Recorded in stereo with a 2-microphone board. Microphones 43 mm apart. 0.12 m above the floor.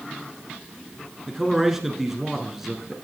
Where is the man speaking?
5° right (ahead or behind), 1.4 m.